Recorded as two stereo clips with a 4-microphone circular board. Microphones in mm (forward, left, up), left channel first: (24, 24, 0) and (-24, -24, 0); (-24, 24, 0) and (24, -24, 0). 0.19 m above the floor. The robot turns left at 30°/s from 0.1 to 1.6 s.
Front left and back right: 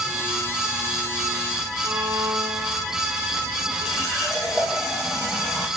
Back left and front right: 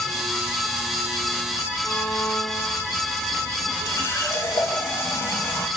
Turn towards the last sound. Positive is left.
turn(degrees=145)